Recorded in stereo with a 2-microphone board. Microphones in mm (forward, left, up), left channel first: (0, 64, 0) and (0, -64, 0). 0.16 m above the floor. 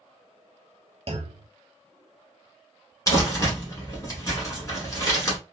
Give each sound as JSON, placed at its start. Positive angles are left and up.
{"t": 1.1, "sound": "a clunk", "side_deg": -55, "distance_m": 0.5}
{"t": 3.1, "sound": "crumpling", "side_deg": 25, "distance_m": 1.3}